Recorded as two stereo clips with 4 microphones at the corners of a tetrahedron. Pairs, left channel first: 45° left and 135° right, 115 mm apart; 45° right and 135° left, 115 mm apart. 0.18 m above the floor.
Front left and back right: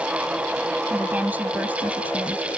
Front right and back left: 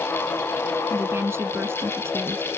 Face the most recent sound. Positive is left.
turn(degrees=170)